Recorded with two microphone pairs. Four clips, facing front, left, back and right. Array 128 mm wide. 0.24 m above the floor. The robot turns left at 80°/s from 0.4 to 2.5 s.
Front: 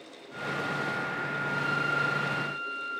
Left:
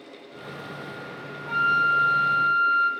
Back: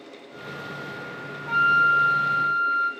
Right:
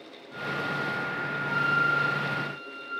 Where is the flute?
170° left, 1.3 m; by 2.9 s 90° left, 1.3 m.